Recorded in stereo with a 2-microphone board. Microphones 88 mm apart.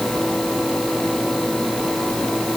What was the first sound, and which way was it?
Only background noise.